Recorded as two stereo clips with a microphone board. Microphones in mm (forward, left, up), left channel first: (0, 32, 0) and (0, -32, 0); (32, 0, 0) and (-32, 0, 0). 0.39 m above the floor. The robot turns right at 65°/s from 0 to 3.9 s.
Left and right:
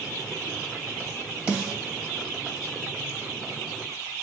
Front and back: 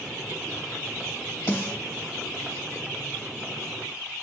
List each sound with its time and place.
1.5 s a snare drum: 20° right, 2.5 m; by 1.8 s 5° right, 2.5 m